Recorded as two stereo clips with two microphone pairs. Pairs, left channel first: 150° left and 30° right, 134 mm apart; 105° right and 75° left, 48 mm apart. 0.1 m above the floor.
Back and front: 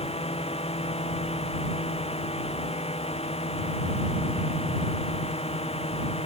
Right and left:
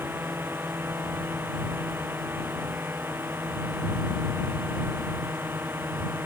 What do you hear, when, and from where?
0.0 s a drone: 110° left